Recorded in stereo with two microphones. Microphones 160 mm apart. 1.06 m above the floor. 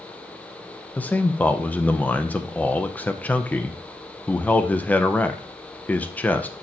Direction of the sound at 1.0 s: 10° left (ahead or behind).